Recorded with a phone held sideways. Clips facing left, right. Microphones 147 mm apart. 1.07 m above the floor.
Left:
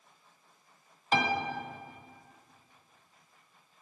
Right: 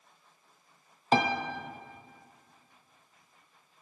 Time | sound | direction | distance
1.1 | a piano | 35° right (ahead or behind) | 0.6 m